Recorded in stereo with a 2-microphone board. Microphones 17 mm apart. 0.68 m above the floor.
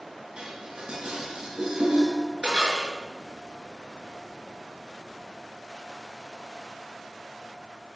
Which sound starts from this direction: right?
Dishes clattering, at 0.4 s.